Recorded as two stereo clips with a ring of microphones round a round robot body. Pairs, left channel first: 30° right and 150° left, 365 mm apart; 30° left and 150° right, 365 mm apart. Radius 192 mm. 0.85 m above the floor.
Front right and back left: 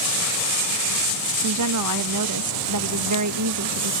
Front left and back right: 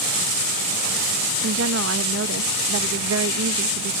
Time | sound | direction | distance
1.4 | a woman speaking | 170° left | ?